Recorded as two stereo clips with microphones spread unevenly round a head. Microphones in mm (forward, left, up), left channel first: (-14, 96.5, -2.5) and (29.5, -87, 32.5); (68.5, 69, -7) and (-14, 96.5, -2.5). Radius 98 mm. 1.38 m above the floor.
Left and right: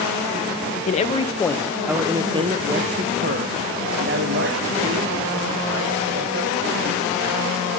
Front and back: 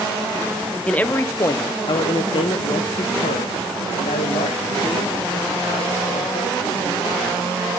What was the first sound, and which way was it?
A man speaking, 55° left.